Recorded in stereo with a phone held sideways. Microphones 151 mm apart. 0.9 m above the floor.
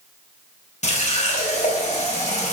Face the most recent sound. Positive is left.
turn(degrees=50)  # may be behind; listen again after turning